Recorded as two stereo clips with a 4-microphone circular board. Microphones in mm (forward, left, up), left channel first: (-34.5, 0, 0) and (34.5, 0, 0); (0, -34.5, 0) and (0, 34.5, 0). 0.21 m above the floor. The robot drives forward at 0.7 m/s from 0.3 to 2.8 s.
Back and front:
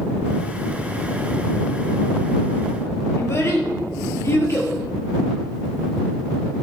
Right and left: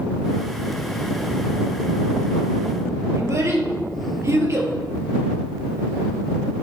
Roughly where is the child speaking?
Behind left.